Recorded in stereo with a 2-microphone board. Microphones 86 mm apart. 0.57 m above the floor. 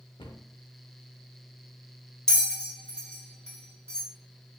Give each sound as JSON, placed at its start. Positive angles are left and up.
{"t": 0.2, "sound": "a cupboard door", "side_deg": 80, "distance_m": 0.6}
{"t": 2.3, "sound": "a bell", "side_deg": 10, "distance_m": 1.2}